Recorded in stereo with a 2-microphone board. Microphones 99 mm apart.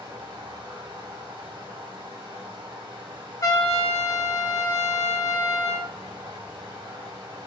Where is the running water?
60° right (ahead or behind), 1.6 m.